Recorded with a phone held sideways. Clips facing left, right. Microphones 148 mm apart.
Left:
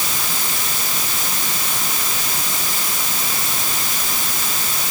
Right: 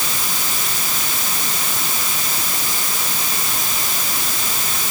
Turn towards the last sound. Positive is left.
No sound to turn to.